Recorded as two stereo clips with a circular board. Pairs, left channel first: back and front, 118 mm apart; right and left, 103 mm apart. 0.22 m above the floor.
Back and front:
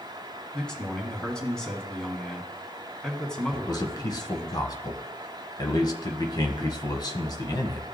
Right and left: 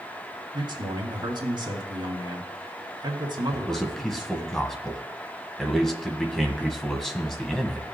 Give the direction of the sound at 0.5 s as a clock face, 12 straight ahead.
9 o'clock.